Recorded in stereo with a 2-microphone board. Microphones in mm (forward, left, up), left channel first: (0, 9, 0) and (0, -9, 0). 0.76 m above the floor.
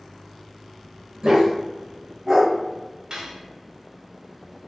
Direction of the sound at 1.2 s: 45° right (ahead or behind).